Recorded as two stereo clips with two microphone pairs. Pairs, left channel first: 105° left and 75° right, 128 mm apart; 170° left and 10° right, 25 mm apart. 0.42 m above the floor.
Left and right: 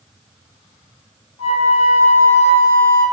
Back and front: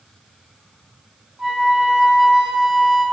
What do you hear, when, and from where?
1.4 s a flute: 65° left, 0.8 m